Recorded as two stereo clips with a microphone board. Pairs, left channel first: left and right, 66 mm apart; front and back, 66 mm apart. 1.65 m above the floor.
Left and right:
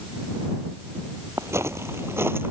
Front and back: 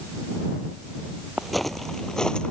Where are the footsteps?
90° right; by 2.5 s 70° right.